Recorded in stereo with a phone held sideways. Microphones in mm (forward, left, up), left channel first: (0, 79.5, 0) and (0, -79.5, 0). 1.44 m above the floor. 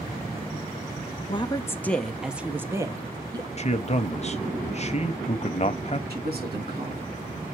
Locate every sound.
1.3 s a woman speaking: 35° left (ahead or behind), 0.7 m; by 3.5 s 25° right (ahead or behind), 1.5 m
3.6 s a man speaking: 45° left (ahead or behind), 0.7 m
6.1 s a man speaking: 85° right, 3 m